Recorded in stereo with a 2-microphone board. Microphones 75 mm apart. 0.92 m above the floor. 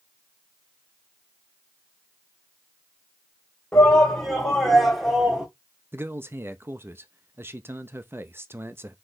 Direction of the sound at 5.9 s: 35° right (ahead or behind).